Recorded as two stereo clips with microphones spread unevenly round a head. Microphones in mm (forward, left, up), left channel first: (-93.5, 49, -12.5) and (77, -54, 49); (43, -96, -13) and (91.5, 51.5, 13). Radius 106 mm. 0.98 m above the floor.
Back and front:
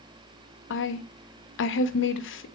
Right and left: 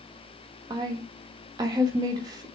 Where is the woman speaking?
145° left, 1.1 m.